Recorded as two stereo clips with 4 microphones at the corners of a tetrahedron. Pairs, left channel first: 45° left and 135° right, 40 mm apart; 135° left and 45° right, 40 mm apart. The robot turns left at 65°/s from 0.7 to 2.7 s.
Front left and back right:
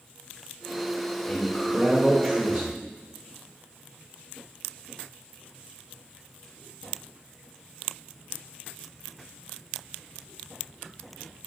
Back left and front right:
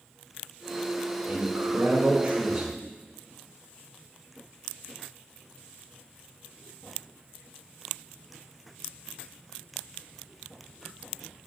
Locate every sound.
1.3 s a man speaking: 45° right, 2 m; by 2.8 s 135° right, 2 m